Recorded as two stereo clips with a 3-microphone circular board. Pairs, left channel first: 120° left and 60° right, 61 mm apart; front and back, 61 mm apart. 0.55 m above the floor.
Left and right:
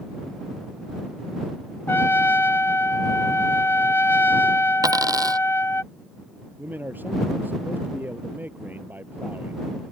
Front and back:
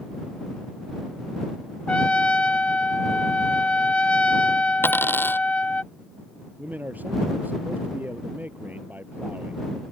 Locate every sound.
1.9 s a trumpet: 70° left
4.8 s a dropped coin: 55° right
6.6 s a man speaking: 120° right